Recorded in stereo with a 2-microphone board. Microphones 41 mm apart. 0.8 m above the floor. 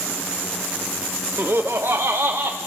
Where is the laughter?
55° right (ahead or behind), 0.8 m; by 2.6 s 70° right (ahead or behind), 1.4 m.